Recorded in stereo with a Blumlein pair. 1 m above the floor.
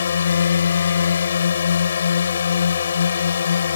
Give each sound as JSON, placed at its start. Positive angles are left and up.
{"t": 0.0, "sound": "a drone", "azimuth_deg": 65}